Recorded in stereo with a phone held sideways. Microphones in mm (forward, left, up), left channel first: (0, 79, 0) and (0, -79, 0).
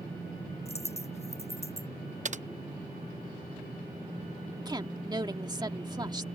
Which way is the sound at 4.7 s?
25° right (ahead or behind).